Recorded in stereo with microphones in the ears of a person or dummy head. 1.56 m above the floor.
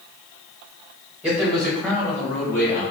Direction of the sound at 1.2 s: 5° right (ahead or behind).